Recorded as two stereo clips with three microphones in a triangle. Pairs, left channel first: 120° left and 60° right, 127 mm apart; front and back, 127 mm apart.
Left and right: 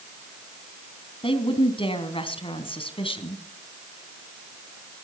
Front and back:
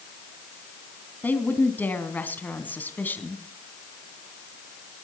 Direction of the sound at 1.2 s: 75° left.